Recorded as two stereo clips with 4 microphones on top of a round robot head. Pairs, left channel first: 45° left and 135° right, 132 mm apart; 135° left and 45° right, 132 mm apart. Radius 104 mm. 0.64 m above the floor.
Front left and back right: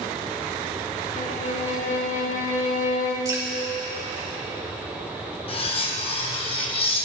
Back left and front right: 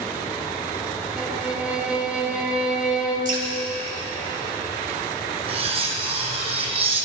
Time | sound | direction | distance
1.2 | a violin | 35° left | 1.5 m
3.2 | dripping | 70° right | 4 m
5.5 | cutlery clinking | straight ahead | 1.5 m